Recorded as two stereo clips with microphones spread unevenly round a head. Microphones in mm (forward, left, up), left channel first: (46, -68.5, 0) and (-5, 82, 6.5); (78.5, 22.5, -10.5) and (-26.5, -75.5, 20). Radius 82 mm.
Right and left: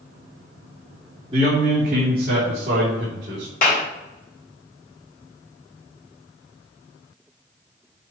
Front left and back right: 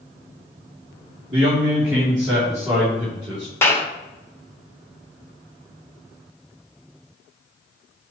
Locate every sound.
1.3 s a man speaking: 170° left, 2 m; by 3.5 s 130° left, 3.5 m
3.6 s a clap: 30° right, 2 m